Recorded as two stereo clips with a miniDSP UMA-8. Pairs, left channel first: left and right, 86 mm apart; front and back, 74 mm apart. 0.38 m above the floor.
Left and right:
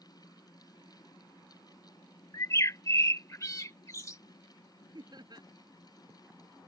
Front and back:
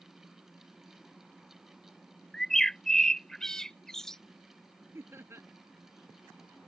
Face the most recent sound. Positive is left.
turn(degrees=-125)